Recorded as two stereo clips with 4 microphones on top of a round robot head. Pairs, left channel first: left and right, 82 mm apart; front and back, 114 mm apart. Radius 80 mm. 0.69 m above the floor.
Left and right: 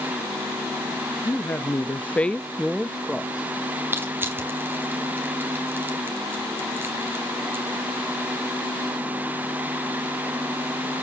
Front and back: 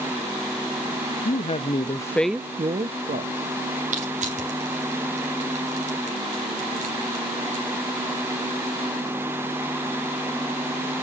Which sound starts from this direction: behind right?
Crushing, at 3.9 s.